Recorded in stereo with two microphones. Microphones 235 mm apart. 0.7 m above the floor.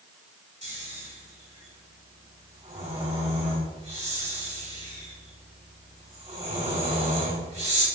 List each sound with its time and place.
0.6 s snoring: 30° right (ahead or behind), 3.5 m